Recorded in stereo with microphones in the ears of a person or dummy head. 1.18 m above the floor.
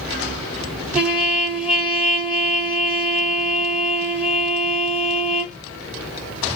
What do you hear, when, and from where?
0.9 s a trumpet: centre (ahead or behind), 1.4 m